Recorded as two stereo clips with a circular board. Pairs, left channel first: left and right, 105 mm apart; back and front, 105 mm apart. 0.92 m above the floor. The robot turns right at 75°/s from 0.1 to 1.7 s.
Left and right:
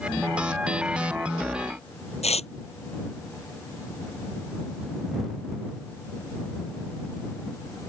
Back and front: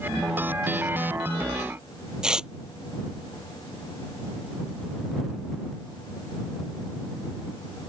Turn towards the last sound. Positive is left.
turn(degrees=85)